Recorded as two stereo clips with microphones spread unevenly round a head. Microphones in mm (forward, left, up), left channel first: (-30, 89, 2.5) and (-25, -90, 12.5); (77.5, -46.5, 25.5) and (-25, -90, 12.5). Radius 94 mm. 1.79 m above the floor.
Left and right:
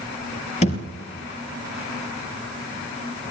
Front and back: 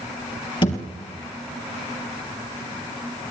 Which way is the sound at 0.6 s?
40° left.